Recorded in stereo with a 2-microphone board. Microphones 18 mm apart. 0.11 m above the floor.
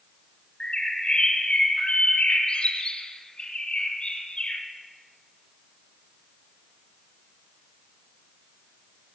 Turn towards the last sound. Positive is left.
turn(degrees=75)  # may be behind; listen again after turning